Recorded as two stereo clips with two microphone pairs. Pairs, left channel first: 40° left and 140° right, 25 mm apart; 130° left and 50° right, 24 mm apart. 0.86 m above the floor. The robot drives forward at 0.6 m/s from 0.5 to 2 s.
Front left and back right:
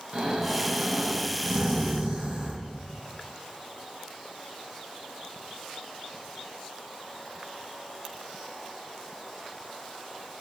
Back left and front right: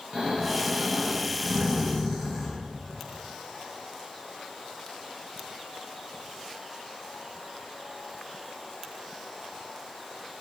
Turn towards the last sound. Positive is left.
turn(degrees=-130)